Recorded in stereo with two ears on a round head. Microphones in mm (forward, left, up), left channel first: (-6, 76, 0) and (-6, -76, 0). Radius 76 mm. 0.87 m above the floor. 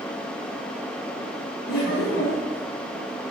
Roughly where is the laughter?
Left.